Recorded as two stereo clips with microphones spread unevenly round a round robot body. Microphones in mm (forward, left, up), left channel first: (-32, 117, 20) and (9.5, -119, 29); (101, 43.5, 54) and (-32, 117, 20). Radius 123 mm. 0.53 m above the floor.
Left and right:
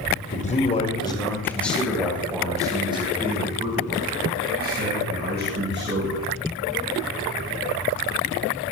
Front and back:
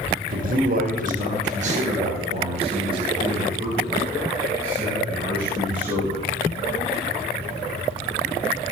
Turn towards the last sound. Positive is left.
turn(degrees=-125)